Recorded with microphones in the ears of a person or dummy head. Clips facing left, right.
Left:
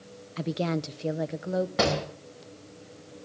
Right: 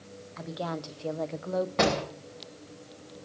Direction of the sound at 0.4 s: 45° left (ahead or behind).